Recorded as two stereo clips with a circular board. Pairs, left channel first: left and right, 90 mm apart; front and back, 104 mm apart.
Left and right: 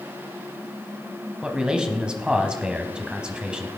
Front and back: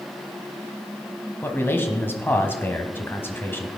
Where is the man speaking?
25° right, 1.1 m.